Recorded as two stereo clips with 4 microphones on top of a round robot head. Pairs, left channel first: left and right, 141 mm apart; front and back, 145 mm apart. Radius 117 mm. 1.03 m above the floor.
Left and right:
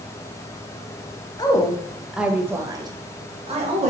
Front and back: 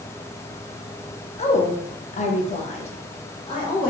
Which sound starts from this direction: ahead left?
A woman speaking, at 1.4 s.